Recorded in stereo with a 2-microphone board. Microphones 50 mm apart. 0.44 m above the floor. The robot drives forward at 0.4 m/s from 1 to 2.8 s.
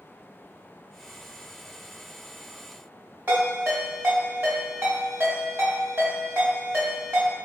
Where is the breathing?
I don't hear breathing.